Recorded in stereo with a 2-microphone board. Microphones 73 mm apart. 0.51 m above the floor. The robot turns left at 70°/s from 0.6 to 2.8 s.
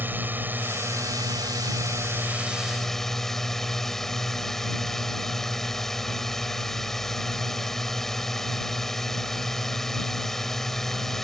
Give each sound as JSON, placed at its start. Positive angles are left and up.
{"t": 0.0, "sound": "a drone", "azimuth_deg": -35}